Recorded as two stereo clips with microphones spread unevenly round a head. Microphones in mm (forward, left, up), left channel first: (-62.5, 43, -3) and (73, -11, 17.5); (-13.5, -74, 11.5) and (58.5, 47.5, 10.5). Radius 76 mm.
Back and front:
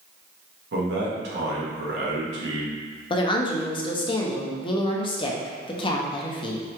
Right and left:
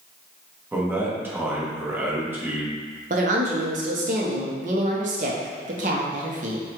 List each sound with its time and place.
0.7 s a man speaking: 15° right, 1.0 m
3.1 s a woman speaking: 100° left, 0.6 m